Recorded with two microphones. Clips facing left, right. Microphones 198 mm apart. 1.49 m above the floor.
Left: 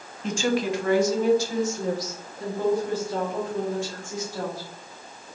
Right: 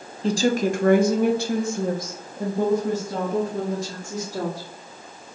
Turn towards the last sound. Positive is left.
turn(degrees=-35)  # may be behind; listen again after turning